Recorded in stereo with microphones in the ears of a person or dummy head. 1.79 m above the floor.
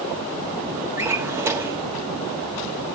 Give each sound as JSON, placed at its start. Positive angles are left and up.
{"t": 1.0, "sound": "a drawer", "side_deg": -15, "distance_m": 1.3}